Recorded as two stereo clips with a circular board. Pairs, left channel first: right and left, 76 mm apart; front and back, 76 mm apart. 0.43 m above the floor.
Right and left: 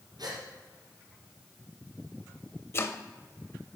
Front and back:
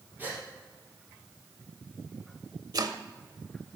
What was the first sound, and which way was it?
A gasp, 115° left.